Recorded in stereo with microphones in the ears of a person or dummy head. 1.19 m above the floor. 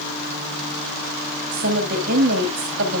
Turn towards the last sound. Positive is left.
turn(degrees=-55)  # may be behind; listen again after turning